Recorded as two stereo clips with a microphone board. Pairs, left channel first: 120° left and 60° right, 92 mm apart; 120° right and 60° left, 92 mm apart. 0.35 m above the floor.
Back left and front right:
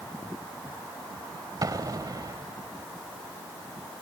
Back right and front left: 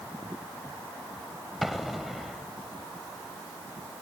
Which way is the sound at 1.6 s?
30° right.